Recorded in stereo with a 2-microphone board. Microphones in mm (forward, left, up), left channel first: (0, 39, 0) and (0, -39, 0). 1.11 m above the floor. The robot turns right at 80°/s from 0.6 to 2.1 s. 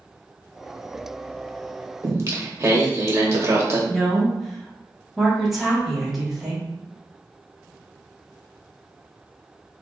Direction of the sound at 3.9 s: 5° right (ahead or behind).